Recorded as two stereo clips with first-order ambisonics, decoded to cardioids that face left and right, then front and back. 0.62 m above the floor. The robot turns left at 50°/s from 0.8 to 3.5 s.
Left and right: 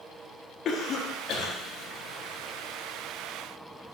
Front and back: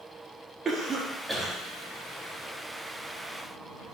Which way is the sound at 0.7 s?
120° left.